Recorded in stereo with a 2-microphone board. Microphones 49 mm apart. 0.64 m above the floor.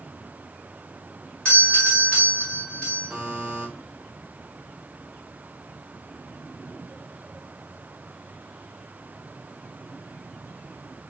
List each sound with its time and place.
1.4 s a doorbell: 25° left (ahead or behind), 1.9 m
3.1 s a buzzer: 20° right (ahead or behind), 3 m